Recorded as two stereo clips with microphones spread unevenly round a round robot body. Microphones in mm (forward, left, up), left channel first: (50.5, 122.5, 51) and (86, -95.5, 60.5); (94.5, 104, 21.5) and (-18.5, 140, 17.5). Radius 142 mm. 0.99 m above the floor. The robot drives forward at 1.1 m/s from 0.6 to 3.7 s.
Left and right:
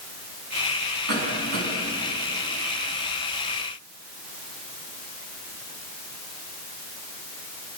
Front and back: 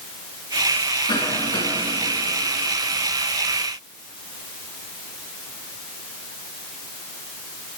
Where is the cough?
70° right, 9 m; by 1.7 s 75° right, 8.5 m.